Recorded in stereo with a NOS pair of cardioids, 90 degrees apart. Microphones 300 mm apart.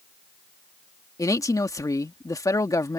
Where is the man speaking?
10° left.